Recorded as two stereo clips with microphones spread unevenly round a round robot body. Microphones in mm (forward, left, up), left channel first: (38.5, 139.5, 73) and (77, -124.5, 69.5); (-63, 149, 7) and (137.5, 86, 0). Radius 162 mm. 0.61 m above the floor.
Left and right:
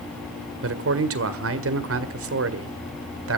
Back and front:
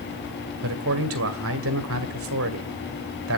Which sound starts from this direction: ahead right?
A man speaking, at 0.6 s.